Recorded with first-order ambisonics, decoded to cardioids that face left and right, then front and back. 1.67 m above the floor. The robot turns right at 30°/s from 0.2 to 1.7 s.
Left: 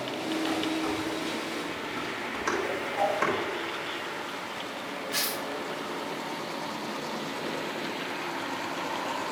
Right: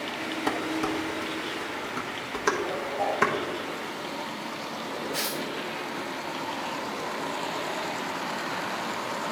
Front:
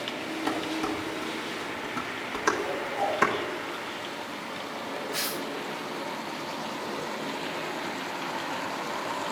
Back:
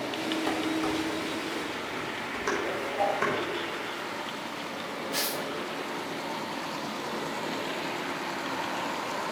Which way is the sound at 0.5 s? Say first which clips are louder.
Right 4 dB, front 2 dB; 80° right.